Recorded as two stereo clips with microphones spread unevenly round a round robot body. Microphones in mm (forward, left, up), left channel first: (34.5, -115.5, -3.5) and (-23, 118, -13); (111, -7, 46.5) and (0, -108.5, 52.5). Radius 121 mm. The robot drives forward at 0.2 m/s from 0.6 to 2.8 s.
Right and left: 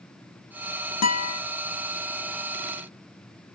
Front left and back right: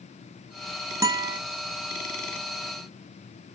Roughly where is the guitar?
Ahead right.